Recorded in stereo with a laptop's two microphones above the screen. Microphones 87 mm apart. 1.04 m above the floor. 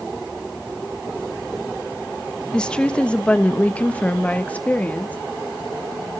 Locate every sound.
2.5 s a woman speaking: 10° left (ahead or behind), 1.1 m; by 5.2 s 15° left (ahead or behind), 2.5 m